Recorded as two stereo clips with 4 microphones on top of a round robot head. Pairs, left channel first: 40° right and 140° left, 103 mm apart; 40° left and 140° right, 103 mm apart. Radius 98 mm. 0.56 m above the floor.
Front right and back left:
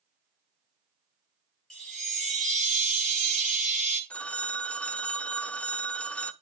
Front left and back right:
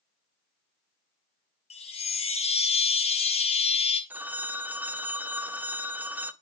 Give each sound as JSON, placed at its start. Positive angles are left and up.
{"t": 1.7, "sound": "a chime", "azimuth_deg": 45, "distance_m": 1.9}
{"t": 4.1, "sound": "a phone ringing", "azimuth_deg": -100, "distance_m": 0.6}